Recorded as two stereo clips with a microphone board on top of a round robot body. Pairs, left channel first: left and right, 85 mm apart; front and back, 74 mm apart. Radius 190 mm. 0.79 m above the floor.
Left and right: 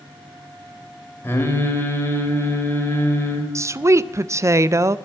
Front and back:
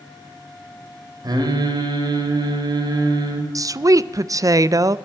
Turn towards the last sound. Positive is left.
turn(degrees=-140)